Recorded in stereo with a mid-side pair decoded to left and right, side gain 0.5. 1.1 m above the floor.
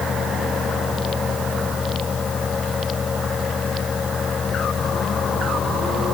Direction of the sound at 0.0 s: 35° left.